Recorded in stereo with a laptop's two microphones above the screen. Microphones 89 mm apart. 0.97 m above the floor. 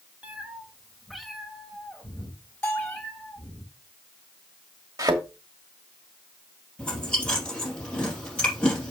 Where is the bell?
20° left (ahead or behind), 4.5 m.